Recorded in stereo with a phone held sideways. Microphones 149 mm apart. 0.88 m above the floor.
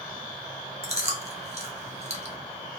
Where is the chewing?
45° right (ahead or behind), 0.6 m.